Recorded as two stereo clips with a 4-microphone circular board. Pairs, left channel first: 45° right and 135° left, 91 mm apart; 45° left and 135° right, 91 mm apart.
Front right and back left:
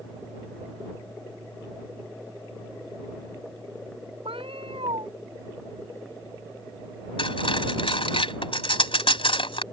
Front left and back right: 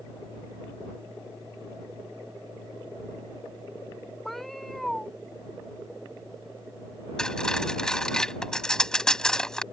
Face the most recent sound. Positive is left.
turn(degrees=-35)